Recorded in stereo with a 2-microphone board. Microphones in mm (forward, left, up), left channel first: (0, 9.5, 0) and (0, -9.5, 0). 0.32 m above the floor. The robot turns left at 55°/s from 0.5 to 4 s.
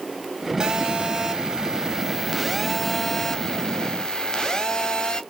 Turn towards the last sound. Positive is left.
turn(degrees=95)